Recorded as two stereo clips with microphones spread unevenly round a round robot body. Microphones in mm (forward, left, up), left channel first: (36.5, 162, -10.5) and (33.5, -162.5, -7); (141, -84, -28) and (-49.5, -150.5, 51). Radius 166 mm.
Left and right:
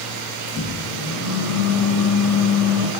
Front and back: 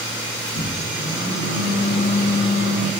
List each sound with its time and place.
0.5 s a microwave: straight ahead, 3.5 m